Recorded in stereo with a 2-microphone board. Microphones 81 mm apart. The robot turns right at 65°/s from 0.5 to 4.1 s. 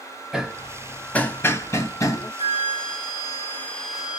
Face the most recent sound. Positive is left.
turn(degrees=-170)